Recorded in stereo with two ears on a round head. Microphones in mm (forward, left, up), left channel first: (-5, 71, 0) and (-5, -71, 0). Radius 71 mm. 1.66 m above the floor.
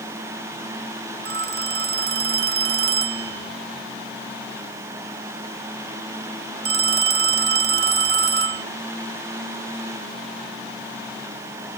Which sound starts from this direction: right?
A phone ringing, at 1.2 s.